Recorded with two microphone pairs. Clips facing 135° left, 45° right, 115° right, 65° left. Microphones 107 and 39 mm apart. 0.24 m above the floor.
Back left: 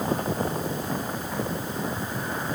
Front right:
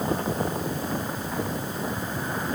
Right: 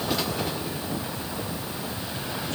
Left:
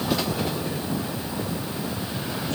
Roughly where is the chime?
No chime in this recording.